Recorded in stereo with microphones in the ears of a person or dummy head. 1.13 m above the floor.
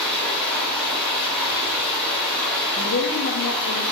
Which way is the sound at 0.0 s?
15° right (ahead or behind).